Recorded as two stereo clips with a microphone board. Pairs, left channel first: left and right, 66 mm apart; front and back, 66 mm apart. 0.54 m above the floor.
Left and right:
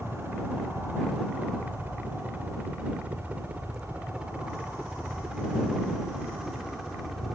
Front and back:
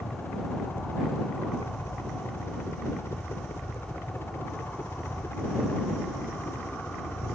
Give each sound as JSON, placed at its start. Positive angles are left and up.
{"t": 0.0, "sound": "a helicopter", "azimuth_deg": -40}